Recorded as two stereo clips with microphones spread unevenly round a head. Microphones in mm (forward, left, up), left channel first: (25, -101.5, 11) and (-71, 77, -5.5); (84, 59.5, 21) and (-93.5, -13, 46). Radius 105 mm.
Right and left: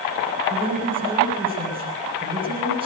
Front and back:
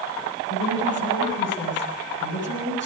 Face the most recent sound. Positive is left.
turn(degrees=50)